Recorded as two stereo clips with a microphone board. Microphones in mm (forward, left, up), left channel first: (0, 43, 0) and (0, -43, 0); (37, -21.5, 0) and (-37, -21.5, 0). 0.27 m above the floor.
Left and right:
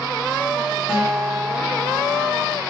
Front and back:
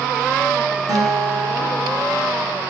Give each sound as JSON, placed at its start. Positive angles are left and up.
{"t": 0.9, "sound": "a guitar", "azimuth_deg": -165, "distance_m": 2.5}